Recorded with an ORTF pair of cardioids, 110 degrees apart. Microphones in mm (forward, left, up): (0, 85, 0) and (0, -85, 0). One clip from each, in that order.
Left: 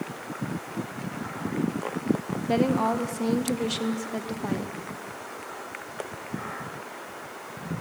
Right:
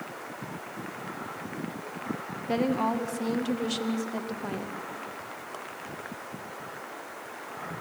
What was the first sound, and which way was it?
A woman speaking, 10° left.